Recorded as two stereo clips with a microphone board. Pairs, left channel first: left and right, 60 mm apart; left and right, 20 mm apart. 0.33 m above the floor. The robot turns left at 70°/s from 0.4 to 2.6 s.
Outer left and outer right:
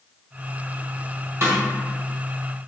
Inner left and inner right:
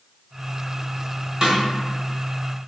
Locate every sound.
1.4 s a snare drum: 45° right (ahead or behind), 1.3 m